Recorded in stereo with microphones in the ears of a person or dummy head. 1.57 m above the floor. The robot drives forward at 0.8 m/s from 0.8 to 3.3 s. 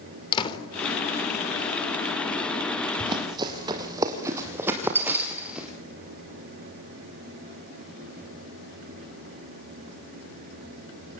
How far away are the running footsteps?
About 4 m.